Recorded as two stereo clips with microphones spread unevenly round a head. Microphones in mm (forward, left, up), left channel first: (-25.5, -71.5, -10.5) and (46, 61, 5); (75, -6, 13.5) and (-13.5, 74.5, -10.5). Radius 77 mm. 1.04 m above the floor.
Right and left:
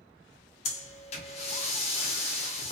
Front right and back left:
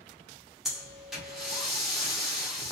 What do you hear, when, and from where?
0.7 s breathing: 145° right, 0.6 m